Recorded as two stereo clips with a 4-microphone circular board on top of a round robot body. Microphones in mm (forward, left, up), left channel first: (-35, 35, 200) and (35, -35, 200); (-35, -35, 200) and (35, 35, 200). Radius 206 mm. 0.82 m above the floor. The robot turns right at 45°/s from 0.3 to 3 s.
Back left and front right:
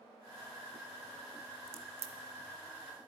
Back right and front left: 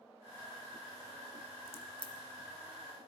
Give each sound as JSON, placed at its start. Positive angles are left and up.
{"t": 1.7, "sound": "a crack", "azimuth_deg": -70, "distance_m": 0.5}